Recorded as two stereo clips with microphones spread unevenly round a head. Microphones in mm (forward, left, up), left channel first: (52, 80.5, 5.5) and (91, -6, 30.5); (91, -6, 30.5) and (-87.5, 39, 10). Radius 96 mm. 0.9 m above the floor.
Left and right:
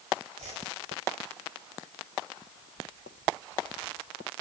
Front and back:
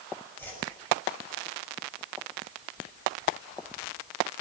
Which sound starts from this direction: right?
A whoosh, at 0.4 s.